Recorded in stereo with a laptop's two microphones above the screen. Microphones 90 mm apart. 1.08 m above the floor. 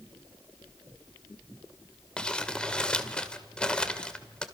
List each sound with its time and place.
2.2 s crumpling: 10° left (ahead or behind), 2 m